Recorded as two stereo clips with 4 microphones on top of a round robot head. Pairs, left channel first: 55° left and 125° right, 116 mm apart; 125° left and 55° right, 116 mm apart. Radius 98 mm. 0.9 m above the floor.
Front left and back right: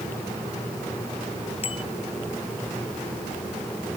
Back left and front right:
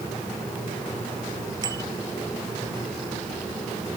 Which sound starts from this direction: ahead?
A bicycle bell, at 1.6 s.